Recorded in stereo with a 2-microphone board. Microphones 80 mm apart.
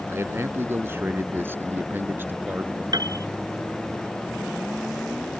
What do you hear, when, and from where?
0.1 s a man speaking: 30° right (ahead or behind); by 2.8 s 25° right (ahead or behind)
2.9 s a piano: 55° right (ahead or behind)